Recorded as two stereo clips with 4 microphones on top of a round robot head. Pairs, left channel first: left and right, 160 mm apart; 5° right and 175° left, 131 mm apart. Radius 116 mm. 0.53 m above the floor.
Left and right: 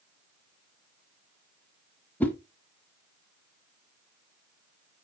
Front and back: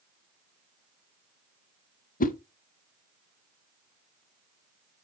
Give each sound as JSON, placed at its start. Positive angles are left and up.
{"t": 2.2, "sound": "a whoosh", "azimuth_deg": 5, "distance_m": 1.0}